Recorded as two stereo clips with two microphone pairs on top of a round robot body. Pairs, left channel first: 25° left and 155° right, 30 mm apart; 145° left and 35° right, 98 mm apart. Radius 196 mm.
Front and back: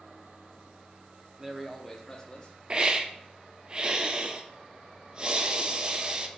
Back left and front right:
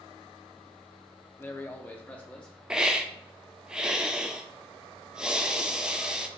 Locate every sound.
1.4 s a man speaking: 175° right, 1.0 m; by 2.6 s 65° left, 1.1 m
2.7 s a hiss: 110° right, 0.7 m